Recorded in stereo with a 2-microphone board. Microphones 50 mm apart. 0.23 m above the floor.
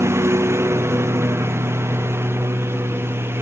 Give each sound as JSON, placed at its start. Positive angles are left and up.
{"t": 0.0, "sound": "a lawn mower", "side_deg": -60}